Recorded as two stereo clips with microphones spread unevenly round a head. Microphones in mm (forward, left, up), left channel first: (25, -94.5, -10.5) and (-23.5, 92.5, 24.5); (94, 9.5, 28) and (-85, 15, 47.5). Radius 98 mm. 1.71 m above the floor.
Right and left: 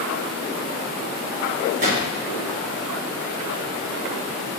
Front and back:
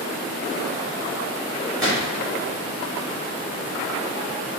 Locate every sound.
1.8 s a gunshot: 90° left, 1.4 m